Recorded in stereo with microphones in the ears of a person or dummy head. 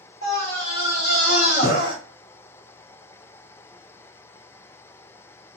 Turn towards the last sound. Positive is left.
turn(degrees=60)  # may be behind; listen again after turning